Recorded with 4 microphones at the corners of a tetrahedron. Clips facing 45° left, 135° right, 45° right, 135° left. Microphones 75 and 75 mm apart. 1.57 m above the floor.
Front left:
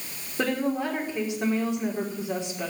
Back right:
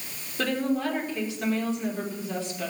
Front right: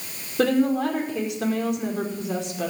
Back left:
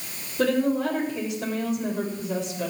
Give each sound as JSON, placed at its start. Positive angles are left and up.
{"t": 0.4, "sound": "a woman speaking", "azimuth_deg": -25, "distance_m": 5.0}